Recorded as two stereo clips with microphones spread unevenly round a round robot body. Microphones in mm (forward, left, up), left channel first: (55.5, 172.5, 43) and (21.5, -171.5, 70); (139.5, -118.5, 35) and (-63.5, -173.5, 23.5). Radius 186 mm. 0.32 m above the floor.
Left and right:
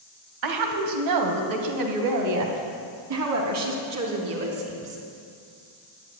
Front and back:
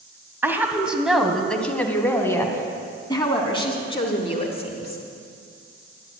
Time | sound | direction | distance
0.4 | a woman speaking | 85° right | 2 m